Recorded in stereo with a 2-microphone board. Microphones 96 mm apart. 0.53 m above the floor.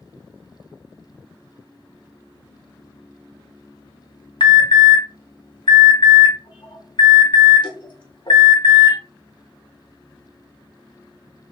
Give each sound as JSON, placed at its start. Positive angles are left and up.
{"t": 4.4, "sound": "an alarm", "side_deg": 55, "distance_m": 0.7}